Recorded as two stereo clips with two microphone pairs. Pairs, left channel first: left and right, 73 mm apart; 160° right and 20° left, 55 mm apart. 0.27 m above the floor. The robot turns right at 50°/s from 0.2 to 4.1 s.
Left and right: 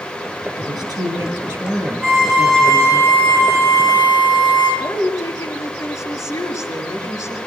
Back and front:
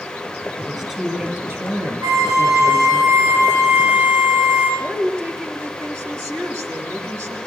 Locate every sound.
0.6 s a woman speaking: 95° right, 6.5 m; by 3.0 s 30° left, 6.5 m
2.0 s a violin: 40° right, 9.5 m; by 4.7 s 65° left, 9.5 m
4.8 s a woman speaking: 50° left, 4 m